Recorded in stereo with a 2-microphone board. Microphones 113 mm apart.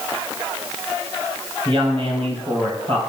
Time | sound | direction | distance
1.6 | a woman speaking | 50° right (ahead or behind) | 3 m